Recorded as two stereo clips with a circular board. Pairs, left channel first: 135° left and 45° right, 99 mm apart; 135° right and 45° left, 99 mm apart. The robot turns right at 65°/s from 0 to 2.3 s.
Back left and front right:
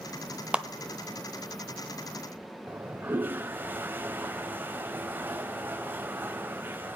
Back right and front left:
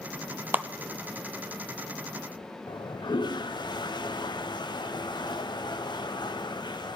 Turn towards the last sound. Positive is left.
turn(degrees=-110)